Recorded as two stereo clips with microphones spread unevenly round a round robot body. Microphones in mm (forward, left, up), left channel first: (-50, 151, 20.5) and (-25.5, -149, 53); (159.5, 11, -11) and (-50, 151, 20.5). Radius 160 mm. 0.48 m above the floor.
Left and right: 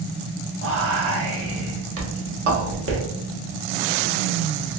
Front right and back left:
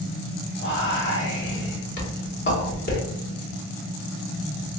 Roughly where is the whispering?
Ahead right.